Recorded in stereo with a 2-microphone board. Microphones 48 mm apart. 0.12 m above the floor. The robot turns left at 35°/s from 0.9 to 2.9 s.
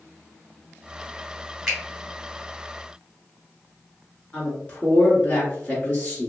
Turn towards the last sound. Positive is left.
turn(degrees=35)  # may be behind; listen again after turning